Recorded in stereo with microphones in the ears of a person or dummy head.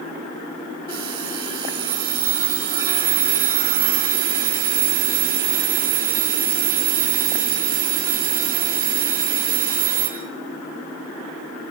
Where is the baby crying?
I don't hear a baby crying.